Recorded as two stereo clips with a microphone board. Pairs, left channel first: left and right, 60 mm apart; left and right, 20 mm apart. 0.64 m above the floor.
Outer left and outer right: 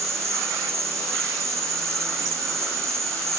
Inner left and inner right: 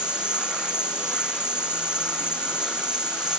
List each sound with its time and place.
0.0 s an insect: 55° right (ahead or behind)